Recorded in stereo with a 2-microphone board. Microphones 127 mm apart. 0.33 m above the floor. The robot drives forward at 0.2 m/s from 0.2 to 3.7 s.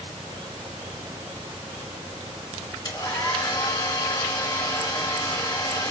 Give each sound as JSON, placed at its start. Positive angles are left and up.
{"t": 2.9, "sound": "a hair dryer", "side_deg": 35, "distance_m": 1.5}